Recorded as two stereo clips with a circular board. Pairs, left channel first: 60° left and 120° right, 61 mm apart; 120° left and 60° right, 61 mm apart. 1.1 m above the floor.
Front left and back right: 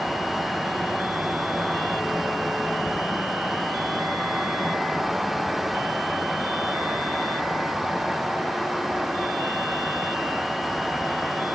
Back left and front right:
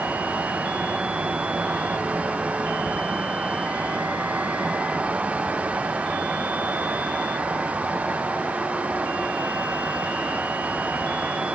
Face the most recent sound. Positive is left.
No sound to turn to.